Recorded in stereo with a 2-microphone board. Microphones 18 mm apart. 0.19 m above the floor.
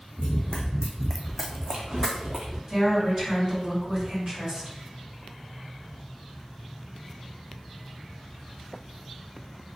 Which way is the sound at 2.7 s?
40° right (ahead or behind).